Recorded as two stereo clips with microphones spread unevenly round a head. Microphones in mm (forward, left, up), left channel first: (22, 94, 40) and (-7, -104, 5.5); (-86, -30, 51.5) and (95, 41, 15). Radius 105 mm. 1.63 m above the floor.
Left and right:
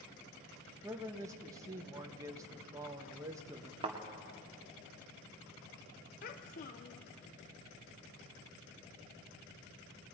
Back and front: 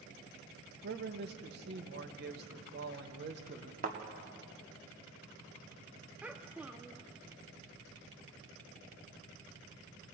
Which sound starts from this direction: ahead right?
A thud, at 3.8 s.